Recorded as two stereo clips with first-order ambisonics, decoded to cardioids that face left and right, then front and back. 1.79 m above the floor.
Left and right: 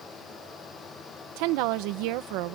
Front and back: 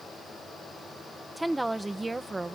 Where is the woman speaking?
95° right; by 2.5 s 105° right.